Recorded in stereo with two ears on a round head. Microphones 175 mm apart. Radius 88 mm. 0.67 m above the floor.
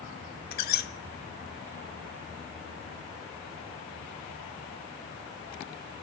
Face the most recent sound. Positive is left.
turn(degrees=50)  # may be behind; listen again after turning